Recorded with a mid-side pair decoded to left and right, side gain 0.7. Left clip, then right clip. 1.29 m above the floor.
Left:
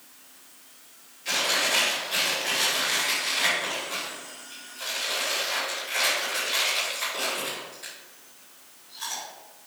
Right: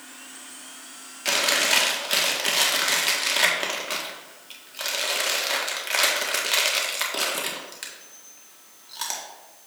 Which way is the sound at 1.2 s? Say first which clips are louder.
Right 3 dB; 60° right.